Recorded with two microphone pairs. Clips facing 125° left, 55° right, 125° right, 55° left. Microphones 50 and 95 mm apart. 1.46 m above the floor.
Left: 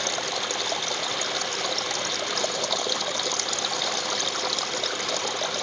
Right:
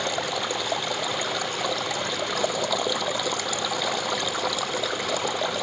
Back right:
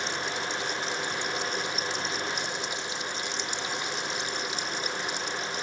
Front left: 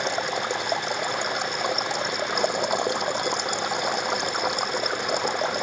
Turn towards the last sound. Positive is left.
turn(degrees=25)